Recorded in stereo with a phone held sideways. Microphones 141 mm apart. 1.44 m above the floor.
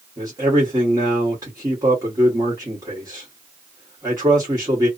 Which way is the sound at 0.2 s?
20° right (ahead or behind).